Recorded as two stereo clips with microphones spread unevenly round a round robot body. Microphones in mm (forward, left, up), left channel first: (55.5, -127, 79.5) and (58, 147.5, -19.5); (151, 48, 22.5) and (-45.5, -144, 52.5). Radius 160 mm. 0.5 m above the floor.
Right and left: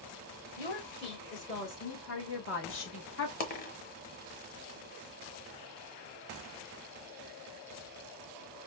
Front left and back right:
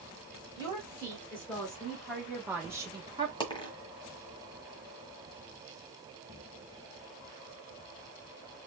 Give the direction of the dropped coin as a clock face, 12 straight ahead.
1 o'clock.